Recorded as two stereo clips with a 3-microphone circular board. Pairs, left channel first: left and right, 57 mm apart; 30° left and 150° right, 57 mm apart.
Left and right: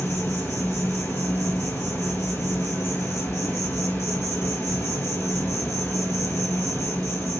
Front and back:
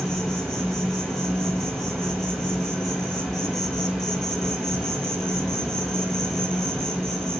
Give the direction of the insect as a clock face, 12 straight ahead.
8 o'clock.